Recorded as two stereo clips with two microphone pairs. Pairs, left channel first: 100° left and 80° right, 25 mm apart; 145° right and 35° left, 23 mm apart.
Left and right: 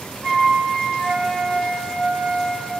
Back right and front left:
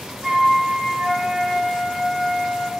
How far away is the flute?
About 6.5 m.